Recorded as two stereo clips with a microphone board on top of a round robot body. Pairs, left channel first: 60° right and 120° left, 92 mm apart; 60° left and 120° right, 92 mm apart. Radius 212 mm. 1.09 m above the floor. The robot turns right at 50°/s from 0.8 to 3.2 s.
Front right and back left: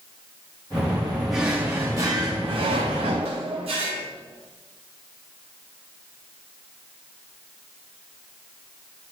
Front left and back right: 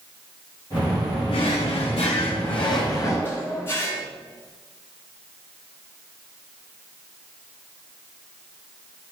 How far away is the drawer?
About 0.9 m.